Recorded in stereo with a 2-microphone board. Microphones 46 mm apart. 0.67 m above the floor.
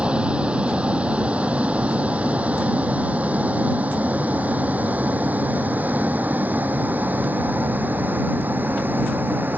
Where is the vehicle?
20° right (ahead or behind); by 9.6 s 40° right (ahead or behind).